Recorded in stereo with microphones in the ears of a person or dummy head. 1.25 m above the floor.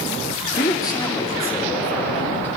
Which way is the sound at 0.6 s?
25° left (ahead or behind).